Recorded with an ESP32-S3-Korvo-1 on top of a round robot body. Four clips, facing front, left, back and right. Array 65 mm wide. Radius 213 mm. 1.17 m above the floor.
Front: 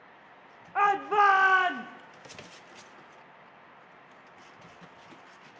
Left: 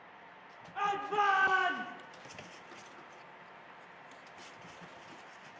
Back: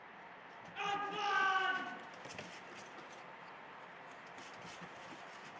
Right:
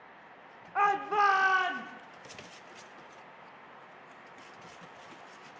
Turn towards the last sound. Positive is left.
turn(degrees=5)